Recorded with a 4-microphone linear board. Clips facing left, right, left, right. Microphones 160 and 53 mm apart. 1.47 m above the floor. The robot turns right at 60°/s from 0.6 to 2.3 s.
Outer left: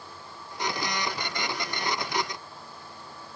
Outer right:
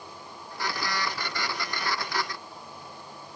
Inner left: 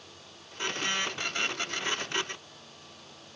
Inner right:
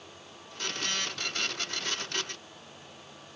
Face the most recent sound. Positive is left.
No sound to turn to.